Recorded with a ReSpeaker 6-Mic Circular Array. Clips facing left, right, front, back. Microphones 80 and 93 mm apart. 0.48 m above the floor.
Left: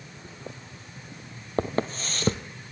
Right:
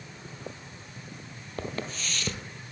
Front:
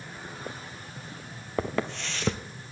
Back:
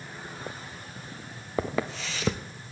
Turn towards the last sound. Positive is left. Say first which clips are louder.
# left 8 dB, even
turn(degrees=95)